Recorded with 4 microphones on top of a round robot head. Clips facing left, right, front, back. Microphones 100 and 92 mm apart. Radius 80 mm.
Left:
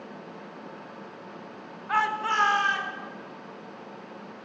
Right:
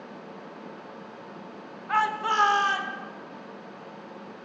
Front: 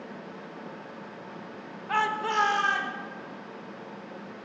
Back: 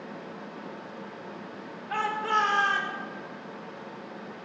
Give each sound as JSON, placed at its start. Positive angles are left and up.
{"t": 1.9, "sound": "a shout", "azimuth_deg": 5, "distance_m": 1.1}